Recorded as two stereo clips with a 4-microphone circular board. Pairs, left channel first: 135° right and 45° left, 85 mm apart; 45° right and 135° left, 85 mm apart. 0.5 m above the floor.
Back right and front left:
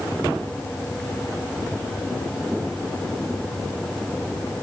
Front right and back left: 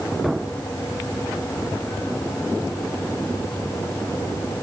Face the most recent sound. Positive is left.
No sound to turn to.